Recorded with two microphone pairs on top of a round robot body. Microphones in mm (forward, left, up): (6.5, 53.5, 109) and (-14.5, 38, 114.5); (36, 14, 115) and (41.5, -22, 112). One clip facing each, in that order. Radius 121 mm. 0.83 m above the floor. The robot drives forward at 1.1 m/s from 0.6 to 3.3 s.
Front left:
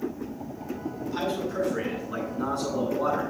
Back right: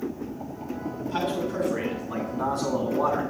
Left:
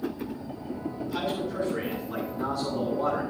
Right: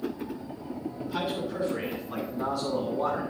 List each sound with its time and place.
1.0 s a man speaking: 165° right, 7.5 m; by 3.2 s 170° right, 10 m